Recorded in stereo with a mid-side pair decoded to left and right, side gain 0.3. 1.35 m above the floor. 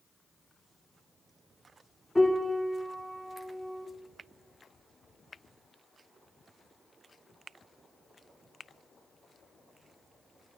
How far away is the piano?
About 2 m.